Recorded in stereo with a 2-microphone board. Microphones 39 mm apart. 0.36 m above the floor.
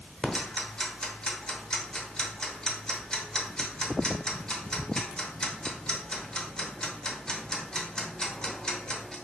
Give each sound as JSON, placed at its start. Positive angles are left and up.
{"t": 0.2, "sound": "ticking", "side_deg": 20, "distance_m": 0.8}